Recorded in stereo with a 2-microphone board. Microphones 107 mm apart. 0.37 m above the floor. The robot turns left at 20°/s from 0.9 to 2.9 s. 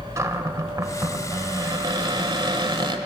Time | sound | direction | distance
0.2 | a cupboard door | 40° right | 1.2 m